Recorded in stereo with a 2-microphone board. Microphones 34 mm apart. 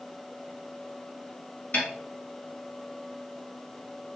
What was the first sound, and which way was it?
A snare drum, 60° left (ahead or behind).